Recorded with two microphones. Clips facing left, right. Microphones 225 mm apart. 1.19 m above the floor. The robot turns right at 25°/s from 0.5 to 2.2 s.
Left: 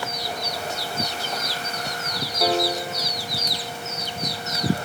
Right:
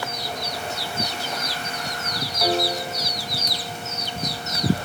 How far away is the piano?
About 1.1 m.